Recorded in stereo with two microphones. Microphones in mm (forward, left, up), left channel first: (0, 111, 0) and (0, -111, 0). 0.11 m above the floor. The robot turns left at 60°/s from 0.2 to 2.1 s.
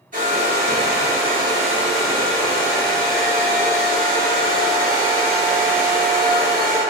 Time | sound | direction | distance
0.1 | a hair dryer | 75° right | 1.3 m